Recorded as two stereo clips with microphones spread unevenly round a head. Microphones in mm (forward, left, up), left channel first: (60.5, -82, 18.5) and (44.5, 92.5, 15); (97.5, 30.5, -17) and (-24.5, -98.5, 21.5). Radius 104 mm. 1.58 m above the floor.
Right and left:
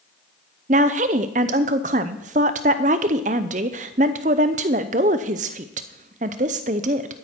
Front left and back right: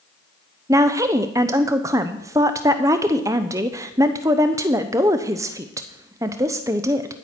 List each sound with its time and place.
0.7 s a woman speaking: 155° left, 0.5 m